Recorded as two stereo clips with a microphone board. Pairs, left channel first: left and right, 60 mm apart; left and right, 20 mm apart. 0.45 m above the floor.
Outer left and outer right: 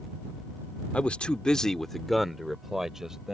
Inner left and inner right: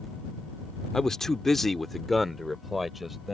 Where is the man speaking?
20° left (ahead or behind); by 3.4 s 10° right (ahead or behind).